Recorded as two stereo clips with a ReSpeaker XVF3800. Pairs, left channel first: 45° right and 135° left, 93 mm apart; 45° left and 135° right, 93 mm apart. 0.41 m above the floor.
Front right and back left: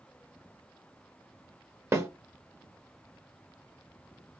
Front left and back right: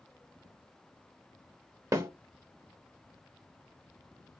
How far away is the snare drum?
About 0.7 m.